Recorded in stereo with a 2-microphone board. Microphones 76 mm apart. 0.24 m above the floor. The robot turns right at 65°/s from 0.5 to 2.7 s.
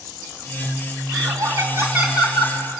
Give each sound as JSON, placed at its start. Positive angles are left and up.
{"t": 1.1, "sound": "laughter", "azimuth_deg": -85, "distance_m": 2.5}